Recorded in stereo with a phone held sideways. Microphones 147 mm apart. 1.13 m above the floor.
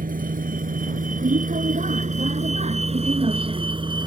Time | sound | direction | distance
0.0 | a vehicle | 80° right | ?